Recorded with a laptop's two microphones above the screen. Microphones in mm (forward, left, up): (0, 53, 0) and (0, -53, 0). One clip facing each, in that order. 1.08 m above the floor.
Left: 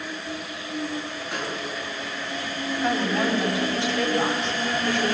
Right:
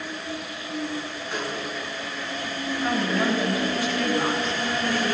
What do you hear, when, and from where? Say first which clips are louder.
1.3 s a snare drum: right 1 dB; 5° left (ahead or behind), 9.5 m
2.8 s a woman speaking: even; 25° left (ahead or behind), 6 m